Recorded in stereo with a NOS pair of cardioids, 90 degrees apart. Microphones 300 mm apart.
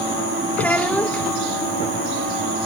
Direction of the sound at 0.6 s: 5° left.